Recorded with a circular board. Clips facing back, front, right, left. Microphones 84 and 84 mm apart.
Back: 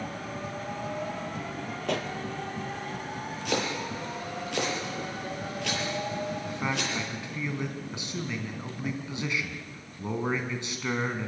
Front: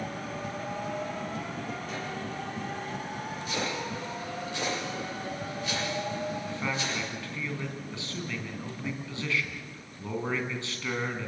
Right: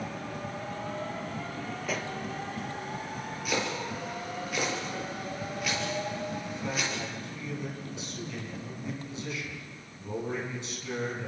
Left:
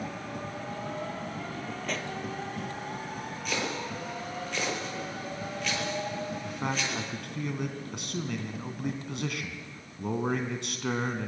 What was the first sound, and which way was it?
A pop, 175° right.